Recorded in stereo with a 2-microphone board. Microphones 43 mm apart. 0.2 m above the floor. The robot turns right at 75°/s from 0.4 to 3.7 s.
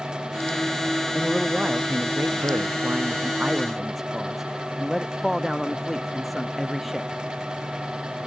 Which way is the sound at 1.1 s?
165° left.